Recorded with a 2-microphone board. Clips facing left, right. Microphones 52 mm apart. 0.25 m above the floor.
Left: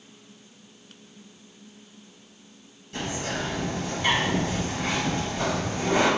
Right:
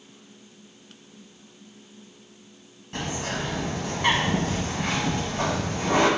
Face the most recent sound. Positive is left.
turn(degrees=-50)  # may be behind; listen again after turning